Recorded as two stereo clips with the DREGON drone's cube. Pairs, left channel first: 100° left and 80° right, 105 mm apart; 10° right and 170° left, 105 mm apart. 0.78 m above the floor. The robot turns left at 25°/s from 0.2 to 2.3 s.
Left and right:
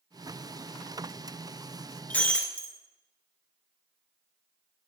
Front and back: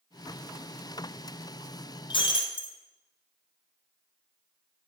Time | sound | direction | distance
2.1 | breaking glass | 25° left | 1.7 m